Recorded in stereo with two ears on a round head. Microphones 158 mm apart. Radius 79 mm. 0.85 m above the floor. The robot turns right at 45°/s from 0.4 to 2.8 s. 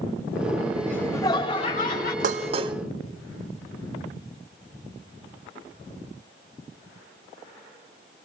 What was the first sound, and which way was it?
Laughter, 5° left.